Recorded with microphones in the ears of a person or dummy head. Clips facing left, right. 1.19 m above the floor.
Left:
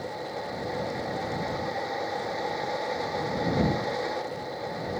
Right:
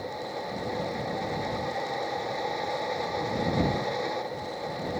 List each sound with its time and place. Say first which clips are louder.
0.0 s a fan: even; centre (ahead or behind)